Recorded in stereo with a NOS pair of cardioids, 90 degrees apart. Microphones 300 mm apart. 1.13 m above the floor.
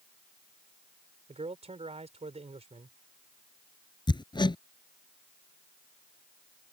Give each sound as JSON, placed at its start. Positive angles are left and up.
{"t": 1.3, "sound": "a man speaking", "azimuth_deg": -20}
{"t": 4.1, "sound": "hammering", "azimuth_deg": 15}